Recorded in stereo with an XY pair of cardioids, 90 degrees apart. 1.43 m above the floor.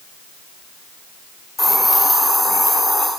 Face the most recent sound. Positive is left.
turn(degrees=25)